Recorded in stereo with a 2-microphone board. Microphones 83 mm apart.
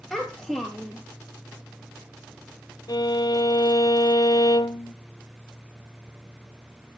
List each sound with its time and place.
0.1 s a child speaking: 5° right (ahead or behind), 2.0 m
2.9 s a violin: 55° left (ahead or behind), 0.8 m